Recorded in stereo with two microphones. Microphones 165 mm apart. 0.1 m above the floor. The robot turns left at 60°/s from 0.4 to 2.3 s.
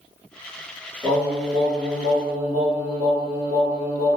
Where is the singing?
20° right, 1.8 m; by 4.2 s 95° right, 1.8 m.